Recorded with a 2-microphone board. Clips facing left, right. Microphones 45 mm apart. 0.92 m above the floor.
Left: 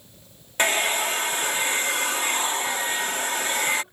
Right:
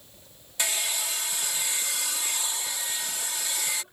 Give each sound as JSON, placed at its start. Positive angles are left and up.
{"t": 0.6, "sound": "a hair dryer", "side_deg": 50}